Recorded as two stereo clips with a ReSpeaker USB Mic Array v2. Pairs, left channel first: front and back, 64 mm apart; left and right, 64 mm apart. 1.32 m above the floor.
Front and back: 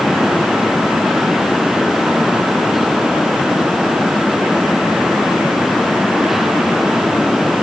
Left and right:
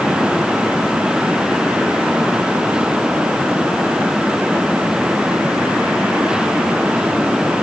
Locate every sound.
Only background noise.